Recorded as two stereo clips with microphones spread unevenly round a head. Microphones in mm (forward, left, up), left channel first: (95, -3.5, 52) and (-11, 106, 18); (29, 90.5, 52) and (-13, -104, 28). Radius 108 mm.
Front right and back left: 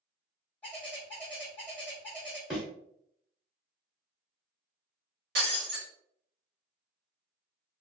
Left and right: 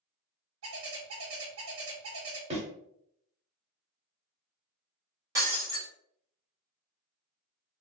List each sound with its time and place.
0.6 s a bird: 120° right, 0.7 m
2.5 s a thud: 90° right, 0.9 m
5.3 s breaking glass: straight behind, 1.0 m